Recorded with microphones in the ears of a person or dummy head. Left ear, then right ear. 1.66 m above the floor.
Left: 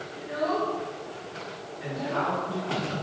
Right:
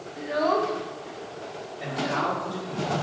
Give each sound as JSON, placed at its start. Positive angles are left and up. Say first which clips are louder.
{"t": 0.2, "sound": "a child speaking", "louder": "right 4 dB", "side_deg": -30, "distance_m": 0.7}
{"t": 1.8, "sound": "a man speaking", "louder": "right 2 dB", "side_deg": -35, "distance_m": 1.9}